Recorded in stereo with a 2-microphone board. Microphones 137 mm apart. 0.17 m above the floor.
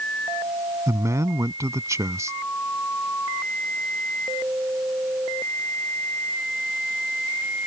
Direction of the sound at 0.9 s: 25° right (ahead or behind).